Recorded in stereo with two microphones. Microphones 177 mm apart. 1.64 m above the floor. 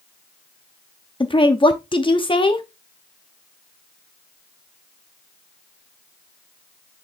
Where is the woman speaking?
30° left (ahead or behind), 0.8 m.